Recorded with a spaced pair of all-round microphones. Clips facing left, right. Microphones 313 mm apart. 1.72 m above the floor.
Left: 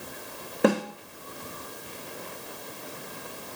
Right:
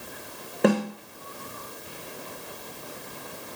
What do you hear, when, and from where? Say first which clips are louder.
0.6 s a snare drum: right 1 dB; centre (ahead or behind), 1.1 m